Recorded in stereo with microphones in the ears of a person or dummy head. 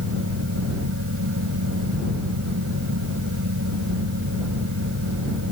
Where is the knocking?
I don't hear knocking.